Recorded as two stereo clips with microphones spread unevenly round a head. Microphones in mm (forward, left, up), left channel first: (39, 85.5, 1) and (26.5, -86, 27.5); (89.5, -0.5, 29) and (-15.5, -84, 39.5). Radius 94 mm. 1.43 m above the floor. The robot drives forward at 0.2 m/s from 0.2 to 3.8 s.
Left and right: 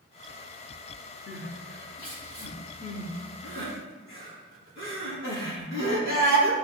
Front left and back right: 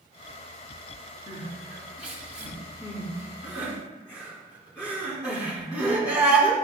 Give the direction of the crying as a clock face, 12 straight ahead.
9 o'clock.